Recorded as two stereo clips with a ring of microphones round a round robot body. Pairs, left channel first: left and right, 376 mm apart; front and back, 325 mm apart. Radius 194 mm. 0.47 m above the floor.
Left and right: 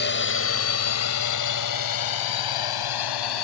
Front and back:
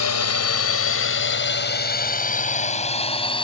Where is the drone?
30° left; by 3.4 s 75° left.